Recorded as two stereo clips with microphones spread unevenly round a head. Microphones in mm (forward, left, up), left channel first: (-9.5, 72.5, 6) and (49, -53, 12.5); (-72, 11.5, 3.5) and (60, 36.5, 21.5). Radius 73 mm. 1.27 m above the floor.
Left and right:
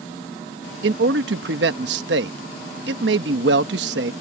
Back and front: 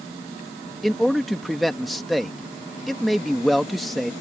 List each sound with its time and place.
0.8 s a man speaking: 80° right